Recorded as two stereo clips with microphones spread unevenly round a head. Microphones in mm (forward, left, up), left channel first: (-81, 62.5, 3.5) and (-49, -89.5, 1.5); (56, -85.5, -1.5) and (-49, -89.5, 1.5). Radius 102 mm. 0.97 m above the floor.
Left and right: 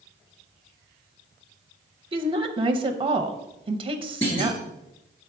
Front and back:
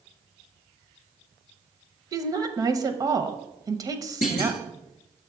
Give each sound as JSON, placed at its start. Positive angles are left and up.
{"t": 2.1, "sound": "a woman speaking", "azimuth_deg": -130, "distance_m": 0.7}
{"t": 4.2, "sound": "a clunk", "azimuth_deg": 35, "distance_m": 1.3}